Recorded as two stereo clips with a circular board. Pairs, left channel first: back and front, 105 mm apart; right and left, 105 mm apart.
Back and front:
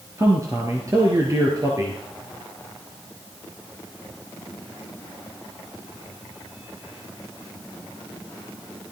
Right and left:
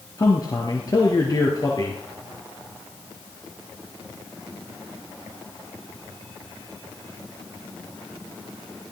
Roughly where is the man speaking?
Ahead right.